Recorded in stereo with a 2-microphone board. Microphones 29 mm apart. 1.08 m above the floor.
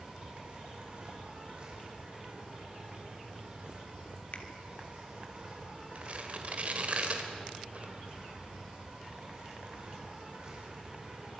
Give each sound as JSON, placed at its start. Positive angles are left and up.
{"t": 0.0, "sound": "an insect", "side_deg": -35, "distance_m": 6.5}
{"t": 4.3, "sound": "a finger snap", "side_deg": 50, "distance_m": 3.0}
{"t": 6.0, "sound": "tearing paper", "side_deg": -50, "distance_m": 3.0}